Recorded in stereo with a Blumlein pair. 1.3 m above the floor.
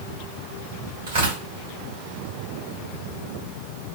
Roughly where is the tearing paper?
Ahead right.